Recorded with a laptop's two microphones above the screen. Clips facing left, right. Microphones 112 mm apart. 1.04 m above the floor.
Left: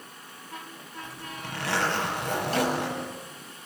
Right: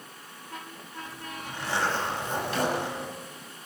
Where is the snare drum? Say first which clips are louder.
Left 1 dB; 40° left (ahead or behind), 8 m.